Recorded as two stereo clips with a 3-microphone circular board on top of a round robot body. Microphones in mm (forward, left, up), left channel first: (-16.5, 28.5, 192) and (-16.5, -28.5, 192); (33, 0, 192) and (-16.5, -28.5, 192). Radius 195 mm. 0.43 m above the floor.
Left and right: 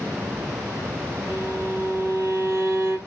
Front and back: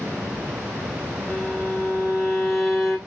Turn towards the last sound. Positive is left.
turn(degrees=-60)